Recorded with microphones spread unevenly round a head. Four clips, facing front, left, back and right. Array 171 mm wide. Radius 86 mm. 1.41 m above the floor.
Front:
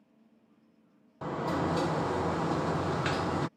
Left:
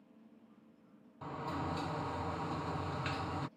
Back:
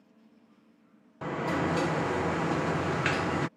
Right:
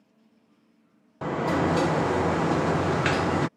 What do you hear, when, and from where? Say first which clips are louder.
1.2 s a sliding door: right 15 dB, back 1 dB; 95° right